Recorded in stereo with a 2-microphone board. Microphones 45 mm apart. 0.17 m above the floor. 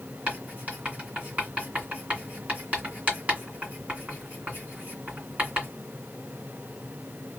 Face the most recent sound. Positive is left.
turn(degrees=-35)  # may be behind; listen again after turning